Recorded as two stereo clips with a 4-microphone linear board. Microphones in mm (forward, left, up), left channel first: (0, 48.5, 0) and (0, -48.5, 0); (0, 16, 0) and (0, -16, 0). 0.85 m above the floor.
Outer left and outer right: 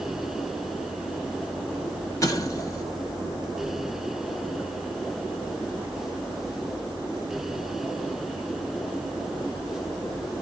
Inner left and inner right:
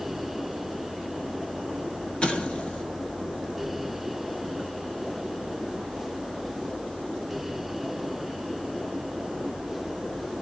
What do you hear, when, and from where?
2.2 s an explosion: 35° left (ahead or behind), 1.0 m